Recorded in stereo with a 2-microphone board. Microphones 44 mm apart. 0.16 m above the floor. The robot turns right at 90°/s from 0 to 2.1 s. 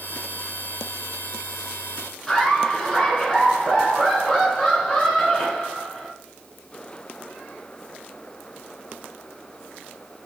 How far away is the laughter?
About 2 m.